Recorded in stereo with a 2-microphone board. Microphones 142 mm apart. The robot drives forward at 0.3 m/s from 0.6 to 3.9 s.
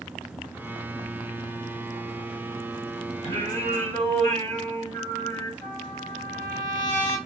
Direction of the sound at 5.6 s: 20° left (ahead or behind).